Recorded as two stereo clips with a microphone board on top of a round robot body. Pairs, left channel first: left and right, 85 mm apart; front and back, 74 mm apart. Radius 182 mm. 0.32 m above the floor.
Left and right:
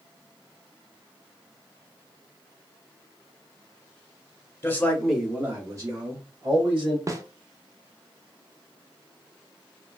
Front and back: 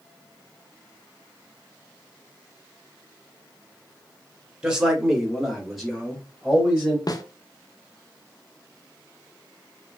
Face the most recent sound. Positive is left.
turn(degrees=-40)